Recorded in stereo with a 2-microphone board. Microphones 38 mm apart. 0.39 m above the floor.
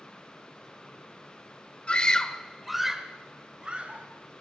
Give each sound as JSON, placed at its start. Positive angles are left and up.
{"t": 1.9, "sound": "a scream", "side_deg": 30, "distance_m": 1.6}